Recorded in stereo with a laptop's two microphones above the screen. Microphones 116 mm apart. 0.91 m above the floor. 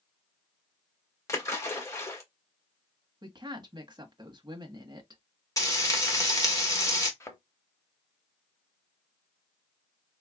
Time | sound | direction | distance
1.3 | a splash | 25° left (ahead or behind) | 1.5 m
3.2 | a woman speaking | 40° right (ahead or behind) | 1.1 m
5.6 | frying | 30° left (ahead or behind) | 1.3 m
7.2 | a thud | 25° left (ahead or behind) | 0.9 m